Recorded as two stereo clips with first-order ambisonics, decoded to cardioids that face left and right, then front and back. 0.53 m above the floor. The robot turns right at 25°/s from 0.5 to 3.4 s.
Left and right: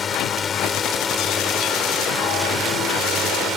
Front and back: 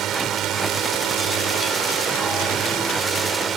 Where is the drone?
150° left; by 3.6 s 140° right.